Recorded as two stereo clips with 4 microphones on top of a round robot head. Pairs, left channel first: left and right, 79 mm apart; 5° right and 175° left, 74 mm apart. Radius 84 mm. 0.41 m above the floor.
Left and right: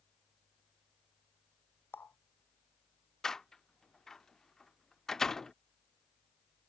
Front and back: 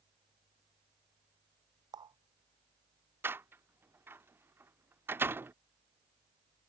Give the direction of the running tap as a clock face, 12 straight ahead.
7 o'clock.